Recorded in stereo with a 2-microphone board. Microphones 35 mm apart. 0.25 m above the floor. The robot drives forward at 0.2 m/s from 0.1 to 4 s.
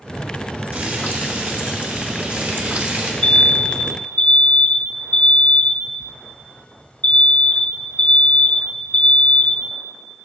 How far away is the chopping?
I don't hear chopping.